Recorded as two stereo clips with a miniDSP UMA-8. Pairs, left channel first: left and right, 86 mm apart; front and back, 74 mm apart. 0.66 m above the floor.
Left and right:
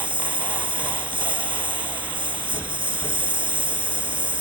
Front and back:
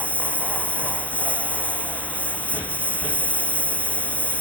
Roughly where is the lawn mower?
Right.